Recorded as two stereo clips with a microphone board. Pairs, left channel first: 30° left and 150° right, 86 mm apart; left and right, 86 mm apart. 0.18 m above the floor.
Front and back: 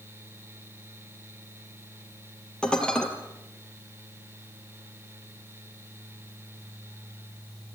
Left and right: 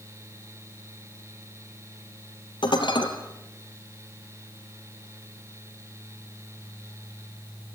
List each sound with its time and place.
2.6 s dishes clattering: 110° left, 3 m